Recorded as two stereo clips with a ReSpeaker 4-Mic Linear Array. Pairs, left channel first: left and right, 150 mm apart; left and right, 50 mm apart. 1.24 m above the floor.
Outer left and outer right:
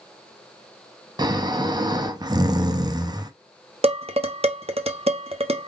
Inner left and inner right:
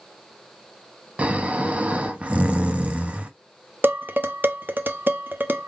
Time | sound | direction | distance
1.2 | snoring | 25° right (ahead or behind) | 0.6 m
3.8 | dishes clattering | 45° right (ahead or behind) | 0.5 m